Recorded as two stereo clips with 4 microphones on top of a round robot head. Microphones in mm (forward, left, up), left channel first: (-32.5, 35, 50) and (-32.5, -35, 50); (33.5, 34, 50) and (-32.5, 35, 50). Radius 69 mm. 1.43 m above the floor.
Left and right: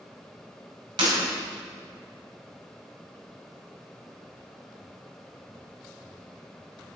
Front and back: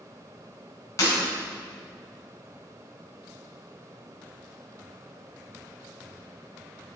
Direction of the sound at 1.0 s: 60° right.